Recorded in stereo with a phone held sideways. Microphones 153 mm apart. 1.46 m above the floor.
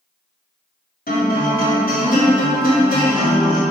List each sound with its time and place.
1.1 s a guitar: 85° left, 3 m